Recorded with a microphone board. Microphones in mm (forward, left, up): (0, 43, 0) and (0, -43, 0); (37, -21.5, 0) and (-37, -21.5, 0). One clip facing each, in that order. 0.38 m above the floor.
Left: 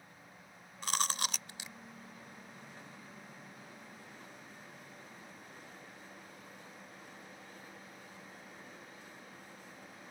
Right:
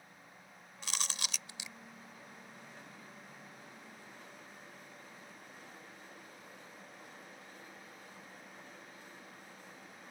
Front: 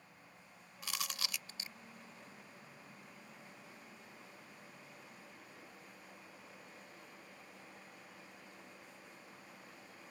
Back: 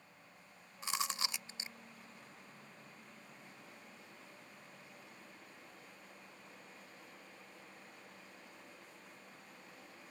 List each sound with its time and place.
0.8 s chewing: 125° left